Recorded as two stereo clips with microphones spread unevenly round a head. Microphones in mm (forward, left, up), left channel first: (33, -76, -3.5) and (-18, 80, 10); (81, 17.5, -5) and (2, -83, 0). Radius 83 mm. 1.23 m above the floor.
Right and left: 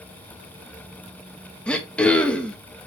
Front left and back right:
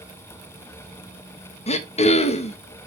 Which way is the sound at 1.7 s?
10° left.